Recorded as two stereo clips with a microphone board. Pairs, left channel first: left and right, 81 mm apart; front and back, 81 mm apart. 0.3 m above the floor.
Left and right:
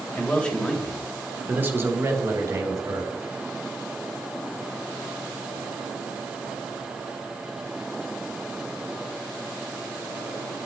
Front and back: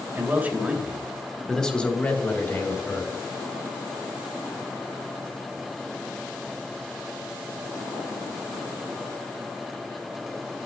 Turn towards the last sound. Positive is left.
turn(degrees=-55)